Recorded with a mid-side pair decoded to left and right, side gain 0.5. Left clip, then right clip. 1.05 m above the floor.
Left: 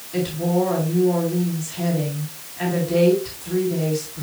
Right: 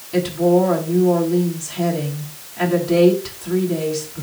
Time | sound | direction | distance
0.1 | a woman speaking | 65° right | 7.5 m